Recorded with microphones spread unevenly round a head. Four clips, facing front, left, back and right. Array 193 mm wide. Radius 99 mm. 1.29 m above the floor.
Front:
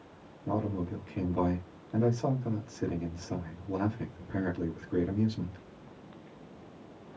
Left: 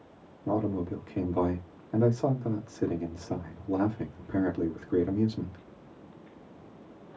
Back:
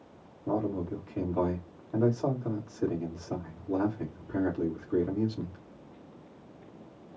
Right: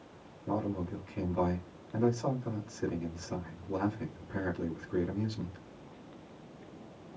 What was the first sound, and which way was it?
A man speaking, 100° left.